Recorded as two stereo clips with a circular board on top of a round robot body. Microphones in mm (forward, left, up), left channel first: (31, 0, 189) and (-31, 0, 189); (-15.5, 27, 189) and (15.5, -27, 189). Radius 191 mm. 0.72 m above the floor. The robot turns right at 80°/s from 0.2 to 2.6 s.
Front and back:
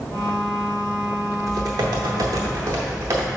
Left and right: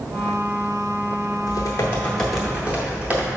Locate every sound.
1.5 s typing on a keyboard: 140° left, 0.6 m; by 3.3 s 130° right, 0.6 m